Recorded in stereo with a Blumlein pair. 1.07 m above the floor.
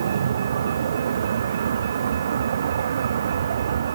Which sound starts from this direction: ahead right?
A vehicle, at 0.0 s.